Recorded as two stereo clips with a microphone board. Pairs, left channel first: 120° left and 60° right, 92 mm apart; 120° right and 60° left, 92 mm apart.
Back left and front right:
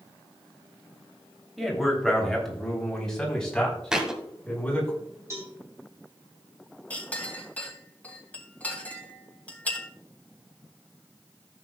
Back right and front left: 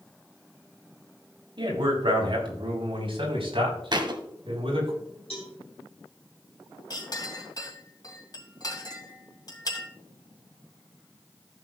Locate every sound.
1.6 s a man speaking: 30° left, 3 m; by 4.9 s 40° left, 5.5 m
3.9 s a thud: 25° left, 1.4 m
5.3 s a cowbell: 115° right, 3 m
6.9 s a clink: 165° right, 2.5 m